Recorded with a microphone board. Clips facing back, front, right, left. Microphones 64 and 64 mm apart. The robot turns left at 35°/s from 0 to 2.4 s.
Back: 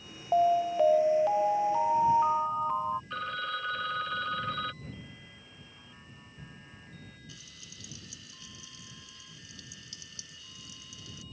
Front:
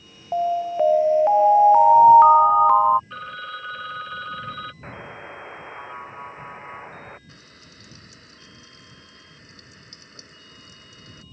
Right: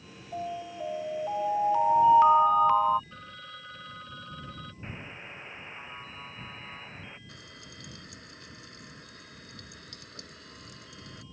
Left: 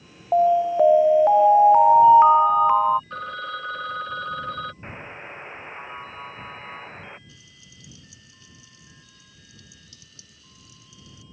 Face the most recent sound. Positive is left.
turn(degrees=-50)